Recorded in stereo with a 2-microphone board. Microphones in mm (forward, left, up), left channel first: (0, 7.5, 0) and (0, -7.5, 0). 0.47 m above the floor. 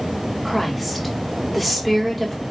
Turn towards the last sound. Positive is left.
turn(degrees=5)  # may be behind; listen again after turning